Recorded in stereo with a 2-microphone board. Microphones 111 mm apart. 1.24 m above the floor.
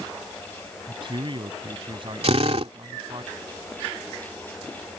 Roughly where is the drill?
Right.